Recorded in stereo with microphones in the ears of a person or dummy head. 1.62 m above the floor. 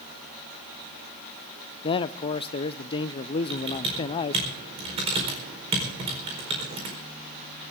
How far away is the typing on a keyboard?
About 4.5 m.